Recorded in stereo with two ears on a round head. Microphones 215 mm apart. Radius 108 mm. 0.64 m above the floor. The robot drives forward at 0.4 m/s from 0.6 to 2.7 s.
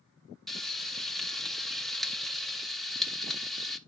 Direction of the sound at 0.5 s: Centre (ahead or behind).